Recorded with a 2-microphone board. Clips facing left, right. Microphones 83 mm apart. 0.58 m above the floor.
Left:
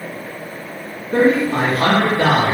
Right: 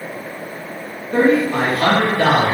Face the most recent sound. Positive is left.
turn(degrees=10)  # may be behind; listen again after turning